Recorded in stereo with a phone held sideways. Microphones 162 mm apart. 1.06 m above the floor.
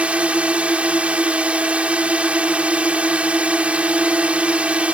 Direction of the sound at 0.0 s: 5° right (ahead or behind).